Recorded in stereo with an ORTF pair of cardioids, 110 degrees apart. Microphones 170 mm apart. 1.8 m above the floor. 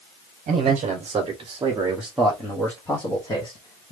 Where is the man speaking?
50° right, 1.3 m; by 3.9 s 35° left, 1.6 m.